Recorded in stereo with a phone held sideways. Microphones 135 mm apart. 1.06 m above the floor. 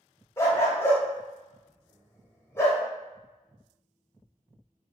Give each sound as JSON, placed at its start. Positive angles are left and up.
{"t": 0.4, "sound": "a dog barking", "side_deg": 20, "distance_m": 0.9}